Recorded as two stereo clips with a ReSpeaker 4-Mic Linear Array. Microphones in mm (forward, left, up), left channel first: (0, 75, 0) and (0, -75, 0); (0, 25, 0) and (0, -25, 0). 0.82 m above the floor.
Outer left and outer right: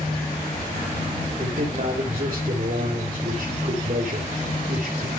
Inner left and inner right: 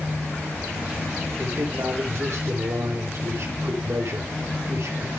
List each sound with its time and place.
1.4 s a man speaking: 75° right (ahead or behind), 3.5 m